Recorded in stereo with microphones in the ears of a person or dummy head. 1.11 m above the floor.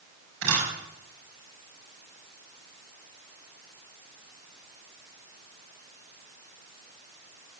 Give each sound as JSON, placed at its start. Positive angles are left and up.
{"t": 0.4, "sound": "a camera shutter", "side_deg": -75, "distance_m": 6.0}